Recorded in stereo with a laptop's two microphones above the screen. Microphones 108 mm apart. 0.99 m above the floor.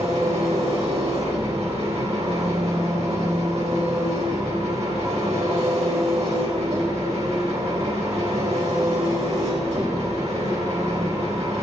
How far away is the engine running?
About 3.5 m.